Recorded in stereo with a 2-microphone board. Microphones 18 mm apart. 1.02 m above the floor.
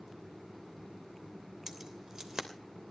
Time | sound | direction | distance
1.7 | keys jangling | 35° right (ahead or behind) | 3 m